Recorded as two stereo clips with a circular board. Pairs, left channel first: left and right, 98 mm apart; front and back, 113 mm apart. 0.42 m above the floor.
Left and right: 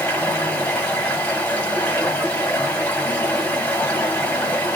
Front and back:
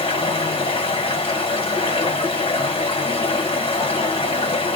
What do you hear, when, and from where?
0.0 s running water: 20° left, 1.6 m